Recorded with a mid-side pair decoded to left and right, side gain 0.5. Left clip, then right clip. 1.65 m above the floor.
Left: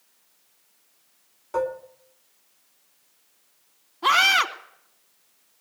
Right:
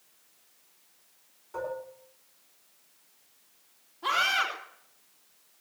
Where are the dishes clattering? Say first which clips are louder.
Left 8 dB; 65° left, 3 m.